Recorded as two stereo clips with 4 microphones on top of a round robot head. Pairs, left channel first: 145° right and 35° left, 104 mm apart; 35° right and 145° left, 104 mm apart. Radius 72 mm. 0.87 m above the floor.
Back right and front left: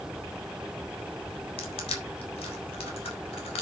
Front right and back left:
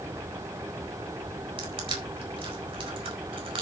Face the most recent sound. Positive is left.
turn(degrees=180)